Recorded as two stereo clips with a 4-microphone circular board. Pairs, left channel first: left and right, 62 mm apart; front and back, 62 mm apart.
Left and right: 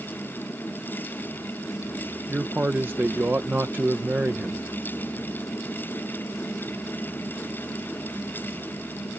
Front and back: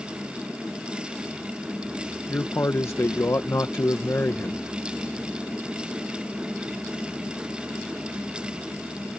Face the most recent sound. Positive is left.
turn(degrees=-40)